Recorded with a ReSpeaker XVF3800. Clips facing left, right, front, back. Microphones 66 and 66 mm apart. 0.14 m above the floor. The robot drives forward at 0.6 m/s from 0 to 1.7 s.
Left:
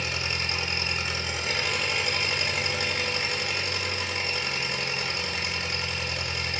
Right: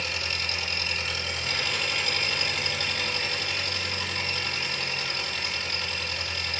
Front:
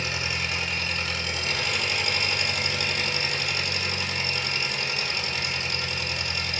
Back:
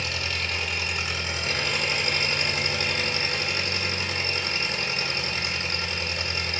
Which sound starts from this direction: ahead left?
An engine running, at 0.0 s.